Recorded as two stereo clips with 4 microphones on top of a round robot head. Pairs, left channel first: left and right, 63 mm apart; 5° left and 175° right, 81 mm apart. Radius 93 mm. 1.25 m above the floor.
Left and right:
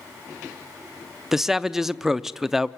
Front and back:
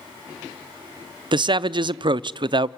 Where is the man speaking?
175° right, 0.5 m.